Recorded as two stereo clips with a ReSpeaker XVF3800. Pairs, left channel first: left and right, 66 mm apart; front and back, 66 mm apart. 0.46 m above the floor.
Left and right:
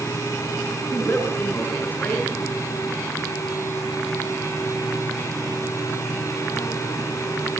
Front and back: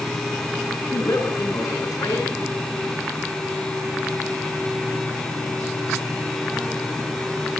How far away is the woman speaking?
About 6.5 m.